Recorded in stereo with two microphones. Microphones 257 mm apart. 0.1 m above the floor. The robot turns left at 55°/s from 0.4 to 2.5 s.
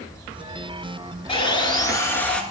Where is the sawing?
20° left (ahead or behind), 0.9 m; by 2.4 s 5° left (ahead or behind), 0.9 m.